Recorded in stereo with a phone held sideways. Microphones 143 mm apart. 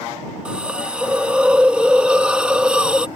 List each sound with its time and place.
0.5 s a hiss: 10° right (ahead or behind)